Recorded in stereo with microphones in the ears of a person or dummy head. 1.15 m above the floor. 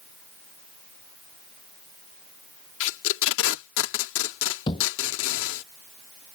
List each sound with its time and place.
2.8 s tape being pulled: 75° left (ahead or behind)
4.7 s a thud: 30° left (ahead or behind)